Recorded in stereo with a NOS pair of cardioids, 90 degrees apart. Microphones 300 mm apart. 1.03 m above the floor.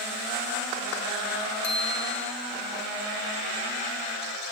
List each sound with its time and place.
1.6 s a bicycle bell: 60° left, 4.5 m